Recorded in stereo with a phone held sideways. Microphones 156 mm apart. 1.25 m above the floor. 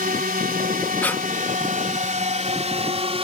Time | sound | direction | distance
0.0 | a drone | 60° right (ahead or behind) | ?
1.0 | breathing | 10° left (ahead or behind) | ?